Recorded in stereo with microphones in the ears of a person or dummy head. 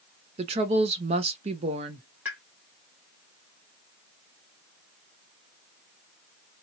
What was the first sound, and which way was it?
A woman speaking, 30° right (ahead or behind).